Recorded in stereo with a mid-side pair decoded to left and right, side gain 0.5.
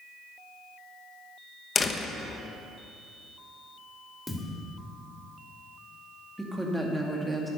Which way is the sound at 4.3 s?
10° left.